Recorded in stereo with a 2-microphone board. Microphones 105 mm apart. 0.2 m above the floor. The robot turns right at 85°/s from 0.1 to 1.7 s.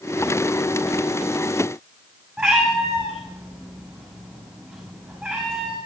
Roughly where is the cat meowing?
Centre.